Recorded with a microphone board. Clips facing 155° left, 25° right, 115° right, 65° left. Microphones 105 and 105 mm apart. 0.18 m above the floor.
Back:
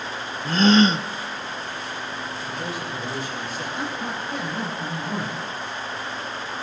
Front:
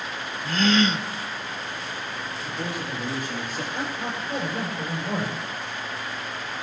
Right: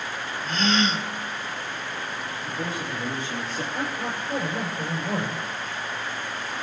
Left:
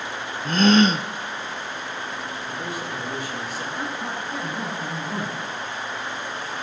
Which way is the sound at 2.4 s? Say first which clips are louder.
Front 1 dB, even; 55° right.